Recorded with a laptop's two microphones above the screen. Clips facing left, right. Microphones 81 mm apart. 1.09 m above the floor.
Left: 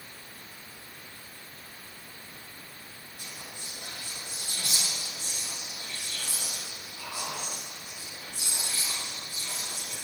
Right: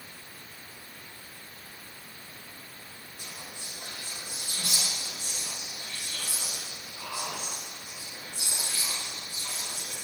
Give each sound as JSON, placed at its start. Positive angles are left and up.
{"t": 3.2, "sound": "whispering", "side_deg": -45, "distance_m": 1.3}